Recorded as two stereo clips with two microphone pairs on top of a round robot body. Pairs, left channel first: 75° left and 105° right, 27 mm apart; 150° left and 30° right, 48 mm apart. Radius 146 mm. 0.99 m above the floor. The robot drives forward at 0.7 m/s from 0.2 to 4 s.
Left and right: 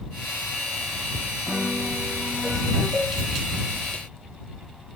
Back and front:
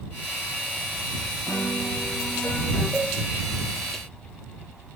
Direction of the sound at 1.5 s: Straight behind.